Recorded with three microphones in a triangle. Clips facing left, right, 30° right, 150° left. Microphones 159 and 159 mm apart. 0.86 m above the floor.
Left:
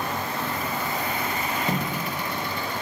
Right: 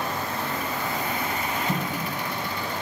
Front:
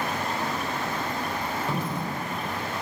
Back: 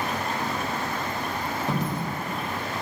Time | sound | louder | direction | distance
1.7 | a dropped coin | left 1 dB, back 2 dB | 80° left | 1.3 m